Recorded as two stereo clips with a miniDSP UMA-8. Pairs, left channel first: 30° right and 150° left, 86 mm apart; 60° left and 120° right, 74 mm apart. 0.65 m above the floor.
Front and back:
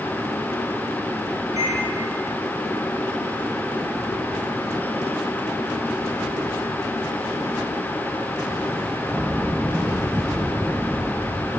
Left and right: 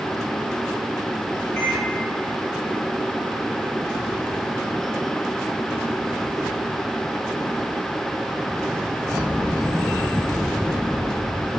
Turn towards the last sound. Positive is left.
turn(degrees=110)